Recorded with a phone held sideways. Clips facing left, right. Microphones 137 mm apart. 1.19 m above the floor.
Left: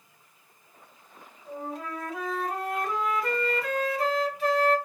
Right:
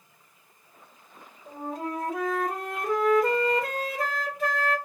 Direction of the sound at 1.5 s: 50° right (ahead or behind).